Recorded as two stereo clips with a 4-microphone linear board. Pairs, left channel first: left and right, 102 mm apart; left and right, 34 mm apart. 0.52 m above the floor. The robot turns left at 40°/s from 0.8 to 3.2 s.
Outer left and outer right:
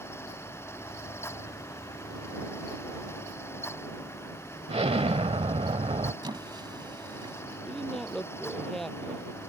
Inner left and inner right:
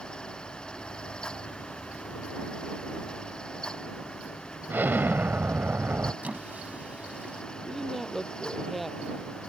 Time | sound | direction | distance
4.7 | an explosion | 80° right | ?
6.2 | a squeak | 45° right (ahead or behind) | ?
7.6 | a woman speaking | centre (ahead or behind) | ?